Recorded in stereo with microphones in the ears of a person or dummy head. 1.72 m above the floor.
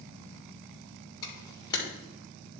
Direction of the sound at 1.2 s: 20° left (ahead or behind).